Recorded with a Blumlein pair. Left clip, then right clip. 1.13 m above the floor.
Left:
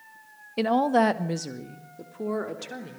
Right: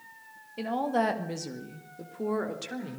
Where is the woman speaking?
30° left, 1.4 m; by 3.0 s straight ahead, 4 m.